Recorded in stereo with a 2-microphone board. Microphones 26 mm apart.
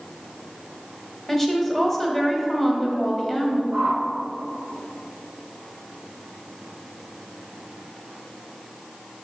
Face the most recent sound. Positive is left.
turn(degrees=-65)  # may be behind; listen again after turning